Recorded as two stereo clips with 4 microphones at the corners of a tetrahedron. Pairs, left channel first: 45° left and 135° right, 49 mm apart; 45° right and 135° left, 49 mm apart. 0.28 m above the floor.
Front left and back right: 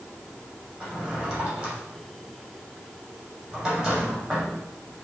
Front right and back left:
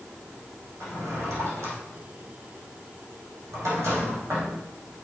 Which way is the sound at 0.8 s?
150° left.